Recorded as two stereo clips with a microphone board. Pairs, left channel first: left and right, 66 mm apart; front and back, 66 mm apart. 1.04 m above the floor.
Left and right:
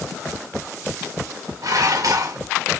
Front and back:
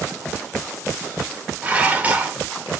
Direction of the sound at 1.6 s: 115° right.